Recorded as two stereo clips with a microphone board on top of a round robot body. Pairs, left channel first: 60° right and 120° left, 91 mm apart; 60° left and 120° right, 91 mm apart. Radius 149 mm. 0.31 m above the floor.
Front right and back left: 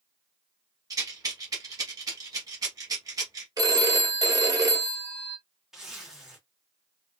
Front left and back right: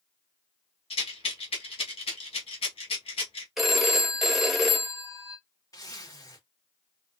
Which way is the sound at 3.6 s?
150° left.